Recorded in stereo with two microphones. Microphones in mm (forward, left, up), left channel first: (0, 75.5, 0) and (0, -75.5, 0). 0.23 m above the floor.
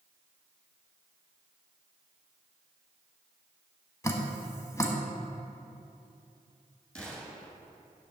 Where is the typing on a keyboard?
No typing on a keyboard in this recording.